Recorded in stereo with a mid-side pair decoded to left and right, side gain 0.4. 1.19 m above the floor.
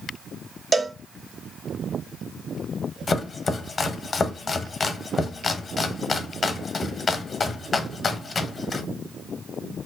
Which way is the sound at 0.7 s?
25° right.